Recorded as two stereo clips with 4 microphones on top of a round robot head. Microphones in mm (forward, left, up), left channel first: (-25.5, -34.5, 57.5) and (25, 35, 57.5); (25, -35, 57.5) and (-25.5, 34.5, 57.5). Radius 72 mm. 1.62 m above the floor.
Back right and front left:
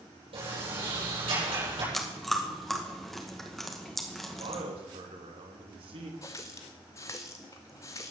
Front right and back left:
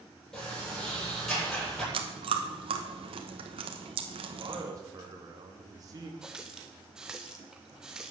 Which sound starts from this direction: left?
A man speaking, at 4.4 s.